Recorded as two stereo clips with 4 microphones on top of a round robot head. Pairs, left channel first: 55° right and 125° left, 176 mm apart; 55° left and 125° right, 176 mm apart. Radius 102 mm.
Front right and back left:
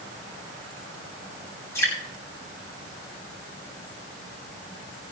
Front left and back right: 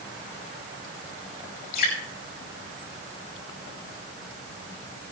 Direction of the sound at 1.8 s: 20° left.